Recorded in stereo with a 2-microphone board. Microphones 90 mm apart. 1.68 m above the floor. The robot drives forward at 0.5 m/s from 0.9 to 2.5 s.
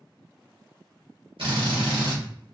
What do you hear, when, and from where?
1.4 s a drill: 75° right (ahead or behind), 1.1 m; by 2.2 s 60° right (ahead or behind), 1.3 m